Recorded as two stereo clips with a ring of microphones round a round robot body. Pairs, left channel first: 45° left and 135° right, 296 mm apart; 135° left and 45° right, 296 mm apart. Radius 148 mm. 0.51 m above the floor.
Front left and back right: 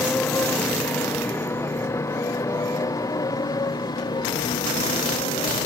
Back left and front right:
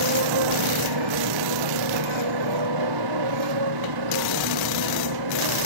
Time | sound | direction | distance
0.0 | a motorcycle | 40° right | ?